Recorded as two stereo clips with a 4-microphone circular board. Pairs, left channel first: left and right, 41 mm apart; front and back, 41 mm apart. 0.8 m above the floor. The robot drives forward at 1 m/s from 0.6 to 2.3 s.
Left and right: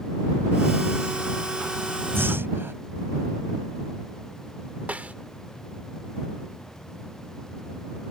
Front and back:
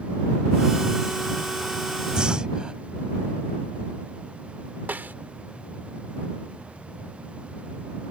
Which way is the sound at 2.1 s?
110° right.